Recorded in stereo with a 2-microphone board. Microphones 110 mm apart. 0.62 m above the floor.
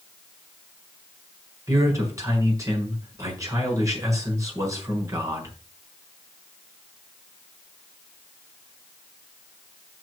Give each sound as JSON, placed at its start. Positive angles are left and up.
{"t": 1.7, "sound": "a man speaking", "side_deg": -25, "distance_m": 6.0}